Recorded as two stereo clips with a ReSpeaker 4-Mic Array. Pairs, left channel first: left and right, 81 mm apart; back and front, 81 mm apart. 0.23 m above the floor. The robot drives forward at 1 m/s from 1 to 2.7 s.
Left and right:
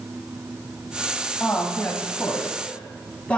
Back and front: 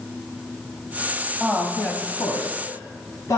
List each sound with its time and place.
1.4 s a woman speaking: 60° left, 1.1 m; by 3.4 s 160° left, 1.5 m